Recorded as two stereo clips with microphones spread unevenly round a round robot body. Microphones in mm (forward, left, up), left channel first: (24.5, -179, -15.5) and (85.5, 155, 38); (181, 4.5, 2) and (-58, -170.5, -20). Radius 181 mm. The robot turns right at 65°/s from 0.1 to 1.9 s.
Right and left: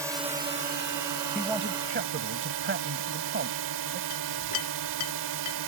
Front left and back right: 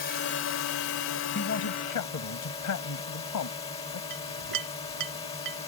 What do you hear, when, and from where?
0.0 s a drone: 5° right; by 5.7 s 110° left
1.4 s a man speaking: 15° right; by 4.0 s 20° left
4.1 s a clink: 140° right